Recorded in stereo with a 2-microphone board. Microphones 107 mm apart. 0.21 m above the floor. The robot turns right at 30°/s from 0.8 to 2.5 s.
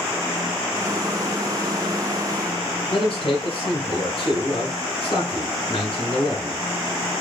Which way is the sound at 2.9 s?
60° left (ahead or behind).